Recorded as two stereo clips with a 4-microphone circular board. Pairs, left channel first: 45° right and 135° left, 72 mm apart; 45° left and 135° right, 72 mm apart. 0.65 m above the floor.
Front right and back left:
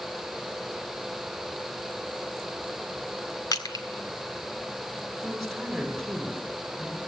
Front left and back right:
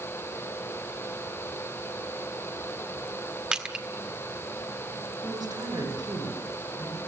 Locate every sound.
3.5 s crushing: 60° right, 1.7 m
5.2 s a woman speaking: 135° right, 6 m